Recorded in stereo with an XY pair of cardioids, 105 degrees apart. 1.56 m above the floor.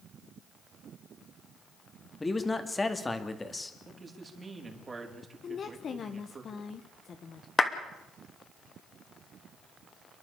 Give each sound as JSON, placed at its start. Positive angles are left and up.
{"t": 2.2, "sound": "a man speaking", "azimuth_deg": 20, "distance_m": 2.5}
{"t": 3.9, "sound": "a man speaking", "azimuth_deg": -25, "distance_m": 5.0}
{"t": 5.4, "sound": "a woman speaking", "azimuth_deg": 50, "distance_m": 1.2}
{"t": 7.6, "sound": "a clap", "azimuth_deg": 25, "distance_m": 2.5}